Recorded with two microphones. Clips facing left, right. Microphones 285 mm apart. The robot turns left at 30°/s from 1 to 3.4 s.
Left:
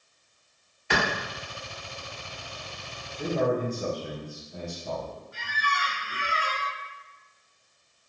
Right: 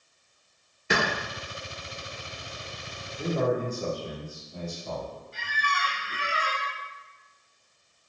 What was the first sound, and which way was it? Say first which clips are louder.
A clap: right 1 dB; 45° right (ahead or behind).